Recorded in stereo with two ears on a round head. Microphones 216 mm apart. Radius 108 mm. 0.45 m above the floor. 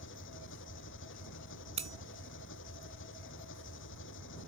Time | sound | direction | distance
0.0 | an engine running | 55° left (ahead or behind) | ?
1.8 | cutlery clinking | 25° right (ahead or behind) | ?